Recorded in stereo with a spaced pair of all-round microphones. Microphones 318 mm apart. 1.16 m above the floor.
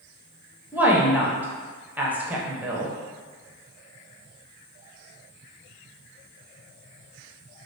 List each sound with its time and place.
0.7 s a woman speaking: 5° right (ahead or behind), 0.6 m